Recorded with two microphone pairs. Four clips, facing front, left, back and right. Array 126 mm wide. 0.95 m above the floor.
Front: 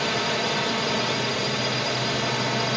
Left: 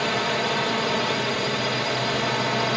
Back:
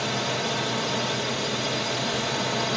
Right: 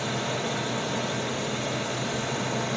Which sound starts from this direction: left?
A drone, at 0.0 s.